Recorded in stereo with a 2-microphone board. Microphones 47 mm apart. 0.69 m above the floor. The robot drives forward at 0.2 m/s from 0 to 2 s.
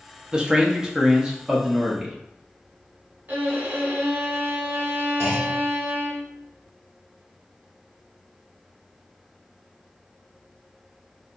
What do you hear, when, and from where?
0.3 s a man speaking: 20° right (ahead or behind), 0.5 m; by 2.2 s 15° right (ahead or behind), 0.7 m
3.3 s a violin: 55° right (ahead or behind), 1.1 m
5.2 s a clunk: 65° right (ahead or behind), 1.5 m